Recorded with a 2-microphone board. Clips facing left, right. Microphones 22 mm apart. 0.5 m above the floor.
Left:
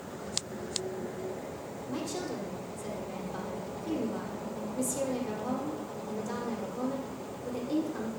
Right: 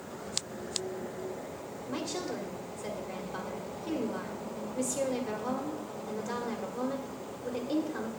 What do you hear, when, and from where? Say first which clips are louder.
1.9 s a woman speaking: even; 20° right (ahead or behind), 1.4 m